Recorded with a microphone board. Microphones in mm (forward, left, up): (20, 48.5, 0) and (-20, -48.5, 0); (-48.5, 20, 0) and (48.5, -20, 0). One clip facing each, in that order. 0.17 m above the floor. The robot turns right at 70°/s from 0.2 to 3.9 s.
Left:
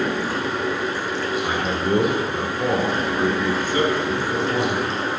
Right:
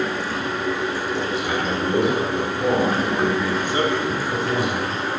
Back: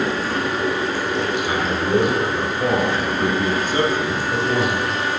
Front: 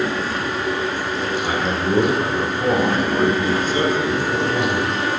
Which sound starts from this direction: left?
Running water, at 0.0 s.